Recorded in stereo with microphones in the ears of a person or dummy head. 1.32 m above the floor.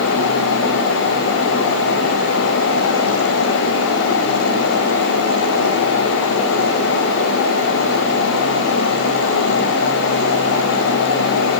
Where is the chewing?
No chewing in this recording.